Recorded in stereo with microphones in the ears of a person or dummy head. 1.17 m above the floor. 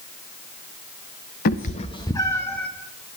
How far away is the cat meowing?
About 0.6 m.